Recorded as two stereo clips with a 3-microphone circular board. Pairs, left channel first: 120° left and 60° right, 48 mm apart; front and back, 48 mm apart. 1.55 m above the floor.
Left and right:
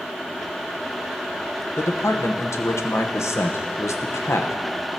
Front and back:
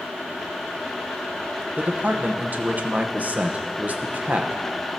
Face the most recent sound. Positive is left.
turn(degrees=125)